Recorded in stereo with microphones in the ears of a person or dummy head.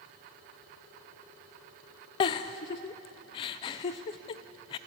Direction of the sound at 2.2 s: 30° left (ahead or behind).